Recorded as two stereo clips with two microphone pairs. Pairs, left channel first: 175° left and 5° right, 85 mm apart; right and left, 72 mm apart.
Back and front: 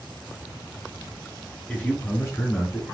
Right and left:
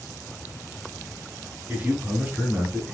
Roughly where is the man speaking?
Behind left.